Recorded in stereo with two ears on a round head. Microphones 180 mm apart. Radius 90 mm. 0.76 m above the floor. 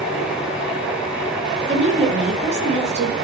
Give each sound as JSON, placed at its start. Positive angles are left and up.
{"t": 1.7, "sound": "a woman speaking", "side_deg": -35, "distance_m": 0.7}